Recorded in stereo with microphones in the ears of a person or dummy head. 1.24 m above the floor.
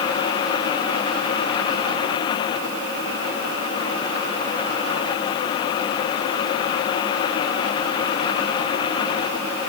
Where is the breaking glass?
No breaking glass in this recording.